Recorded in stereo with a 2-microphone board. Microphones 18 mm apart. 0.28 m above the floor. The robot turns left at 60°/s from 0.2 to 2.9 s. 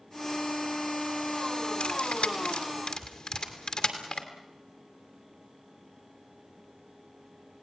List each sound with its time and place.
1.8 s cutlery clinking: 65° left (ahead or behind), 2.5 m; by 4.2 s 45° left (ahead or behind), 2.5 m